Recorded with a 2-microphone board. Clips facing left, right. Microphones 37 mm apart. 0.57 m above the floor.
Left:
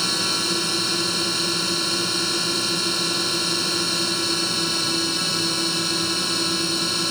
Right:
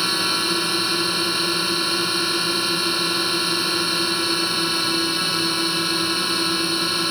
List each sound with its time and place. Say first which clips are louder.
0.0 s a drone: right 2 dB; 15° right (ahead or behind)